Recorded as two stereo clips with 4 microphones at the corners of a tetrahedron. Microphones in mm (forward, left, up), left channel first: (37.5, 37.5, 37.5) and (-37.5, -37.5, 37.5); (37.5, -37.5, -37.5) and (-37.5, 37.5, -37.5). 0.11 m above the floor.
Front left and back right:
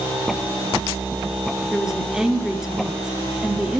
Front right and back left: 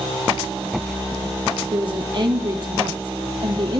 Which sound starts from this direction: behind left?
A woman speaking, at 1.7 s.